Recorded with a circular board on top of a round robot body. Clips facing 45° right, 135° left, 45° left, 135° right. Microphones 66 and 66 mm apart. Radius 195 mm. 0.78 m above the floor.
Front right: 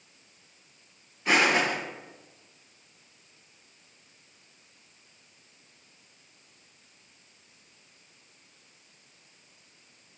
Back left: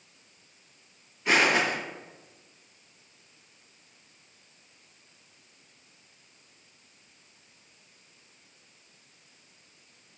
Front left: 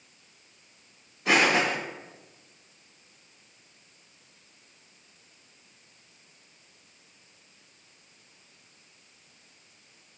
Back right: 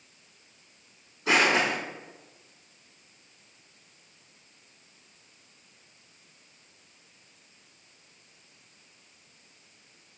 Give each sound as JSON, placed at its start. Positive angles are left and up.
{"t": 1.2, "sound": "footsteps", "azimuth_deg": 50, "distance_m": 0.9}